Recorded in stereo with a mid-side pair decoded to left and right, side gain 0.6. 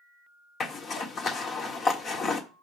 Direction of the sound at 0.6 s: 45° left.